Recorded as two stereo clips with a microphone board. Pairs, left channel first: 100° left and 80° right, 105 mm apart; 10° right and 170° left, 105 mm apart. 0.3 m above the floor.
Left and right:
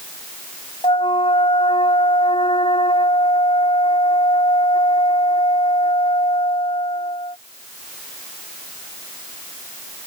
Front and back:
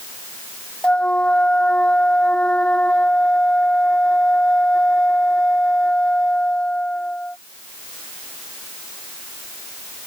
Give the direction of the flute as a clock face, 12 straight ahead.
10 o'clock.